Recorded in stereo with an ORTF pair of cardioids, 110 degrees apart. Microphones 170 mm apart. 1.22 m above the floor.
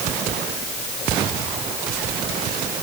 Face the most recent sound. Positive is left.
No sound to turn to.